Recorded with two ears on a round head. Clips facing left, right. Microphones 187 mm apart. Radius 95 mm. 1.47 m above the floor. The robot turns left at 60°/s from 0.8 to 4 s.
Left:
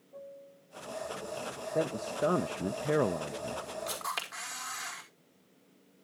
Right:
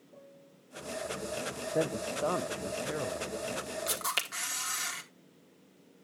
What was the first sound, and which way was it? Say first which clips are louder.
A piano: left 8 dB; 20° right.